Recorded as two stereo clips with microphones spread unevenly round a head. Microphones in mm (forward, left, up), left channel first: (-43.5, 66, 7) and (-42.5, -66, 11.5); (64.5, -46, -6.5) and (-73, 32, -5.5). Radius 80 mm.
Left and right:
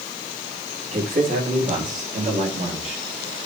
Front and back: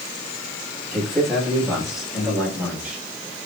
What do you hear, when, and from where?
0.9 s a man speaking: 120° right, 6.5 m; by 3.0 s 125° right, 6.5 m